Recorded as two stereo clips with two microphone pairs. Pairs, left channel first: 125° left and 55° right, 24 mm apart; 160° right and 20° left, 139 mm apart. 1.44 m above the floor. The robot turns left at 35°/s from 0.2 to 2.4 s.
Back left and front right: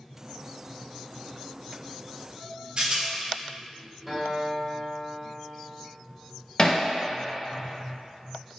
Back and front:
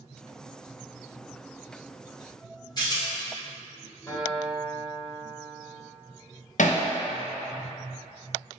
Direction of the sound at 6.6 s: Straight behind.